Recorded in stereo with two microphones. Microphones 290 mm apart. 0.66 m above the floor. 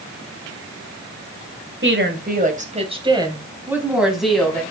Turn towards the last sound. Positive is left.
turn(degrees=5)  # may be behind; listen again after turning